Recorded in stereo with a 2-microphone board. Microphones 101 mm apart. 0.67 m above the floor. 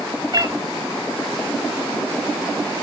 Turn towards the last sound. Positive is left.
turn(degrees=-40)  # may be behind; listen again after turning